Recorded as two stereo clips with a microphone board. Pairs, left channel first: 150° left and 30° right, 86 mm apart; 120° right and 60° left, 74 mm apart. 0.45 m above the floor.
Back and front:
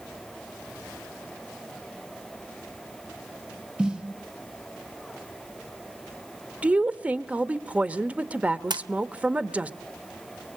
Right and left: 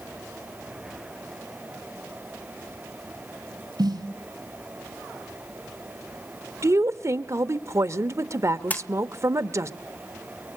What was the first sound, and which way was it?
A snare drum, 45° left.